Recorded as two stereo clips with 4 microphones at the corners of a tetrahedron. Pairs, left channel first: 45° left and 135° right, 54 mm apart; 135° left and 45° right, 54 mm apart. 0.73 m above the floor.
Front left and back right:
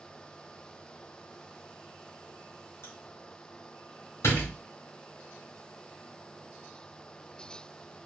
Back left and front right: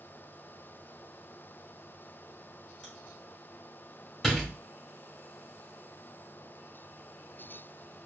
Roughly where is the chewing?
Ahead left.